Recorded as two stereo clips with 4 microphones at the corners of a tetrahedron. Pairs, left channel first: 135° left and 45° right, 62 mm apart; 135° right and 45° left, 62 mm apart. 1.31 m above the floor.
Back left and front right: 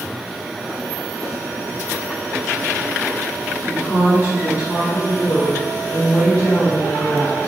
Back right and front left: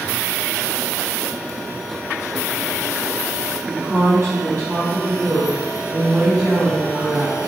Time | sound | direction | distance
3.7 | a woman speaking | 105° left | 0.9 m